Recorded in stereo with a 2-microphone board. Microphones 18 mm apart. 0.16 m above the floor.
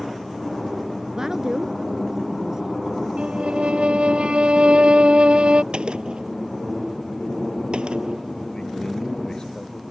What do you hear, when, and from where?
1.2 s a woman speaking: 35° right (ahead or behind)
3.2 s a violin: 75° right (ahead or behind)
5.7 s a gunshot: 60° right (ahead or behind)
8.5 s a man speaking: 35° left (ahead or behind)